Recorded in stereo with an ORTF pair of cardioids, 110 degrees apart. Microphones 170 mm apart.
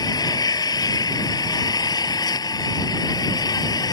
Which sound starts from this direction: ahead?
An engine running, at 0.0 s.